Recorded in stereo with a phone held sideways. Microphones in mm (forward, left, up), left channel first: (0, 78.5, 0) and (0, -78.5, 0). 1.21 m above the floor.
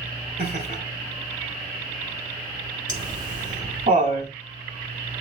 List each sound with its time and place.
0.4 s laughter: 85° right, 5.5 m
2.9 s laughter: 55° right (ahead or behind), 4 m